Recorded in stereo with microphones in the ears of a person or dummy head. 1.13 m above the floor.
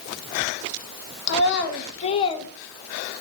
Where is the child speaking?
65° left (ahead or behind), 0.9 m; by 2.5 s 15° left (ahead or behind), 0.8 m.